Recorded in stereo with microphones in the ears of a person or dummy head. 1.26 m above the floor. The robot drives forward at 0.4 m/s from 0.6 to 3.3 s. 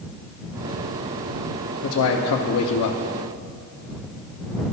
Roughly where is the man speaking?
Left.